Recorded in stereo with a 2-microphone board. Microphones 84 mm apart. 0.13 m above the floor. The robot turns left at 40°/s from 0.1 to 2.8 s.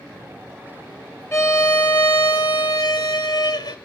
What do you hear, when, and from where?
1.3 s a violin: 140° left, 0.9 m; by 3.8 s 80° left, 0.9 m